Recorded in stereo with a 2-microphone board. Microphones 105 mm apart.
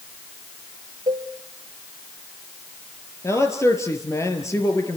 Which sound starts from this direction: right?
A cowbell, at 1.1 s.